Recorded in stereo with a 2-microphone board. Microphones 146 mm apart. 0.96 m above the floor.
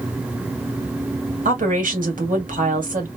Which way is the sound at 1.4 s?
70° right (ahead or behind).